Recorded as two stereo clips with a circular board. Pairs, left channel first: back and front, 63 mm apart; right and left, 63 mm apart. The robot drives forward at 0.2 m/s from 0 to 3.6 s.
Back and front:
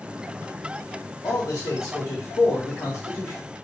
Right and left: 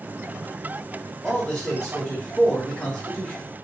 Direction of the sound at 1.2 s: 175° right.